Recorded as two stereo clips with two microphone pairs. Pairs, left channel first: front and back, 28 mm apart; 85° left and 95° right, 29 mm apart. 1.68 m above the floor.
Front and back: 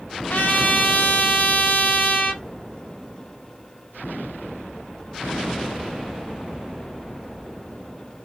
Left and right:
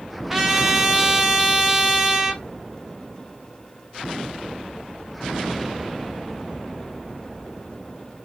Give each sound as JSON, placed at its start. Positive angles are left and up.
{"t": 0.3, "sound": "a trumpet", "azimuth_deg": -15, "distance_m": 0.6}